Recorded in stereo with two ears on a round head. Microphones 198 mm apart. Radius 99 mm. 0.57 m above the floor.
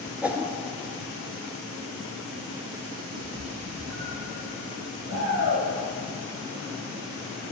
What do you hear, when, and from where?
0.2 s a whoosh: 5° right (ahead or behind), 1.3 m
3.1 s a cat meowing: 85° right, 6.5 m
5.1 s a shout: 15° right (ahead or behind), 6 m